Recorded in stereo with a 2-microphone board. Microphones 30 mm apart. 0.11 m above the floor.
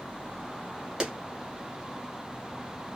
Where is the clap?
25° right (ahead or behind), 1.5 m.